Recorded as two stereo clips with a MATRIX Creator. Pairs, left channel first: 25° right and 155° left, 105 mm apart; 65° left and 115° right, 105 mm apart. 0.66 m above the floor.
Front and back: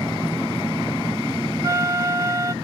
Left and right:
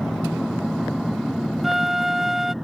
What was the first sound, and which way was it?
A flute, 165° left.